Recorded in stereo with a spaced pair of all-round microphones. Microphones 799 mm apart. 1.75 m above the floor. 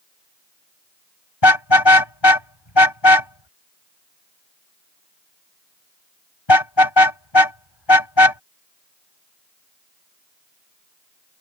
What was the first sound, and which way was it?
A car horn, 35° left (ahead or behind).